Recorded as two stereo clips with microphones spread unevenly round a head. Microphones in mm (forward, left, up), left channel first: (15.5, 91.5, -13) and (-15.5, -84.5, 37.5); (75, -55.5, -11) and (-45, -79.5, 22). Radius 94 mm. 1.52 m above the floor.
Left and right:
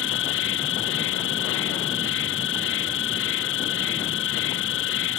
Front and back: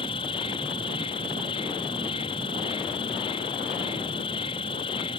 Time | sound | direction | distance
0.0 | an insect | 75° left | ?